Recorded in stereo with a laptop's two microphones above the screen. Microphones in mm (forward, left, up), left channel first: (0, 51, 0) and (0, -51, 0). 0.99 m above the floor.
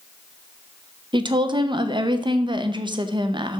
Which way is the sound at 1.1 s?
45° right (ahead or behind).